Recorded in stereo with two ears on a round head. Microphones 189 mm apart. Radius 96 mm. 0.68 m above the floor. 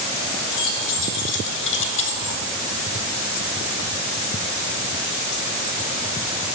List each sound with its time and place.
0.5 s keys jangling: 65° left (ahead or behind), 2.5 m; by 2.4 s 60° left (ahead or behind), 0.8 m